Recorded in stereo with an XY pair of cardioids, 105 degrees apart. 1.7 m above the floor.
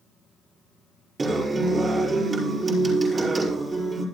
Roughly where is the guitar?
Ahead right.